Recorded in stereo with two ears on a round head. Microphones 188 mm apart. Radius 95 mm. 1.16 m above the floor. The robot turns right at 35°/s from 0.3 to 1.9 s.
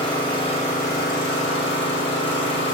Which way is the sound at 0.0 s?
20° left.